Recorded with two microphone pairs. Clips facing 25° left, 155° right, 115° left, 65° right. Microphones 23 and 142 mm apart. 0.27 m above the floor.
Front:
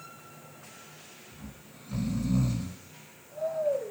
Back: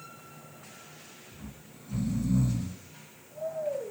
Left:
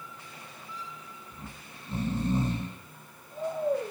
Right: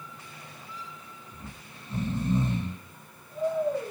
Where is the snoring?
65° left, 0.8 m.